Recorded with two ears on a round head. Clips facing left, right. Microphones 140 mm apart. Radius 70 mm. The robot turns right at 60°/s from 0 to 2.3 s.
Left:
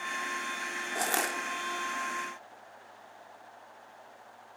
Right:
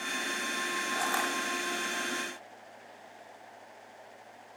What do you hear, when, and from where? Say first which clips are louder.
0.9 s crushing: left 2 dB; 20° left (ahead or behind), 2.5 m; by 1.4 s 45° left (ahead or behind), 2.5 m